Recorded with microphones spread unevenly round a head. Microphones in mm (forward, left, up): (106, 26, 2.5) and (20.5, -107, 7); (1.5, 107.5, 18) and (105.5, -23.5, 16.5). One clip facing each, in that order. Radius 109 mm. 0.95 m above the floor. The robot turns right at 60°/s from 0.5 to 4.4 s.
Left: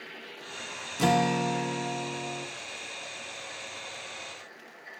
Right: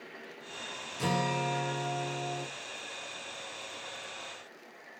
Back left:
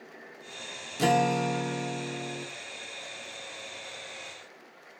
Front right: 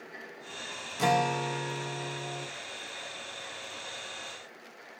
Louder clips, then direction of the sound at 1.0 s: Left 7 dB, back left 3 dB; 75° left.